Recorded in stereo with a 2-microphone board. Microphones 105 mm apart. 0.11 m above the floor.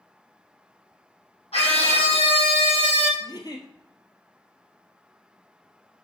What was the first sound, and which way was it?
A scream, 65° left (ahead or behind).